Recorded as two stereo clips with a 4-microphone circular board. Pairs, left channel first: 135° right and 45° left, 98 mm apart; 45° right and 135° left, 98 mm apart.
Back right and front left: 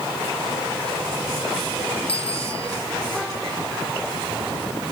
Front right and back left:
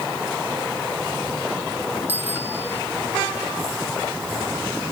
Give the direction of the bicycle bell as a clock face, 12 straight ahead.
5 o'clock.